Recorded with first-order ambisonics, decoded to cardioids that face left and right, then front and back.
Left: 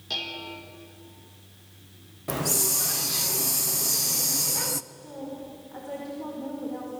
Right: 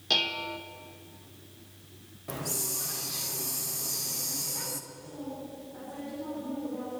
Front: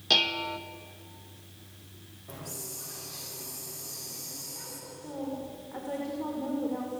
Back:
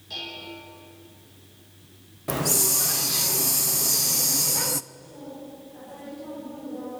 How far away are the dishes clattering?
About 1.5 m.